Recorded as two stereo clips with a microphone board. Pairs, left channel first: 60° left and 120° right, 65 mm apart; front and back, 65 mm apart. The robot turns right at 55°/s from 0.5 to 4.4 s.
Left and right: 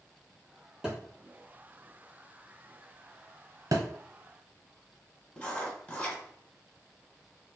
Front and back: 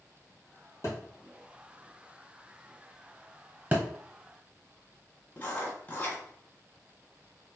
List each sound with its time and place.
0.8 s a thud: 40° right, 1.8 m; by 1.0 s 35° right, 1.8 m
3.7 s a thud: 125° right, 0.7 m; by 3.8 s 120° right, 0.7 m
5.4 s writing: 20° left, 1.4 m